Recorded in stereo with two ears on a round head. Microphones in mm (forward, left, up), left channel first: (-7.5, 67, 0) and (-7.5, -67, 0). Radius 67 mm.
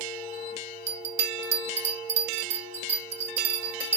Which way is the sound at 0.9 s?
45° right (ahead or behind).